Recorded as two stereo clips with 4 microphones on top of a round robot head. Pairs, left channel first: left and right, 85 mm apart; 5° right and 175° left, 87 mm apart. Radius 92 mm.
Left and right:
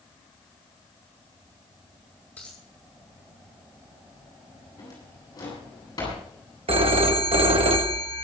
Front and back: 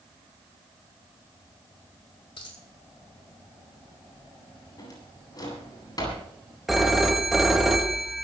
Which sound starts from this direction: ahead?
A dropped coin, at 2.4 s.